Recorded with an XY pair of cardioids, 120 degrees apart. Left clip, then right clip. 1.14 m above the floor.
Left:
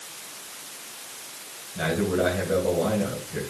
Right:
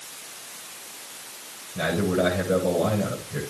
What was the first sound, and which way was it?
A man speaking, 25° right.